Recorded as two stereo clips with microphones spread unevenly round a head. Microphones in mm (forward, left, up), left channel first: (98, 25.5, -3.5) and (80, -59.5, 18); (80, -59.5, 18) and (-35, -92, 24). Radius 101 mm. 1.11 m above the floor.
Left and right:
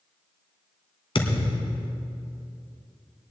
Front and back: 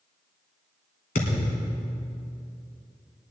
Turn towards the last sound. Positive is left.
turn(degrees=45)